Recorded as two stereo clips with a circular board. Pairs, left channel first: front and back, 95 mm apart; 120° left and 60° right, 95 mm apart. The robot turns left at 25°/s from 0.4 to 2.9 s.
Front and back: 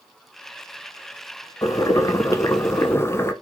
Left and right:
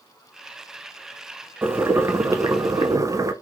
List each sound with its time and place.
1.6 s boiling: 10° right, 0.5 m; by 3.3 s 45° right, 0.5 m